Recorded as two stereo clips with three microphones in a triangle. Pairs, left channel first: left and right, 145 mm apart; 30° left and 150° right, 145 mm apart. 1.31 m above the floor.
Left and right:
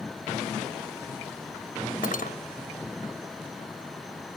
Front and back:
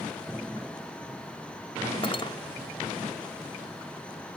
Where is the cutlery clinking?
80° left.